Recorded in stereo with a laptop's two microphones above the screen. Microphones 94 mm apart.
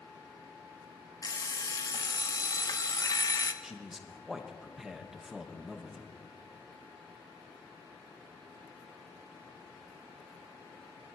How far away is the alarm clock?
About 0.6 m.